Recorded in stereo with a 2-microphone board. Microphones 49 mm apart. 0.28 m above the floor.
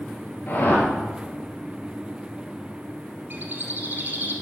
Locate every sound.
0.5 s a whoosh: 35° left (ahead or behind), 3 m
3.3 s a bird: 40° right (ahead or behind), 1.5 m